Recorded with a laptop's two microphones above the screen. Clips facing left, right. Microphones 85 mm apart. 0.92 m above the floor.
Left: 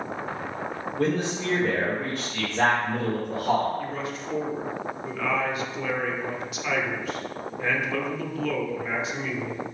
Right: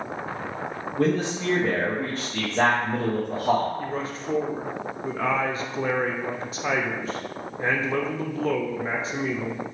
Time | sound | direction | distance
1.0 | a man speaking | 35° right (ahead or behind) | 0.7 m
3.8 | a man speaking | 35° right (ahead or behind) | 0.6 m